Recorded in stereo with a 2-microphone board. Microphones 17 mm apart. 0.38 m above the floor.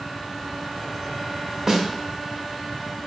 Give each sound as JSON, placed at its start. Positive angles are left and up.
{"t": 1.7, "sound": "a snare drum", "side_deg": -30, "distance_m": 0.6}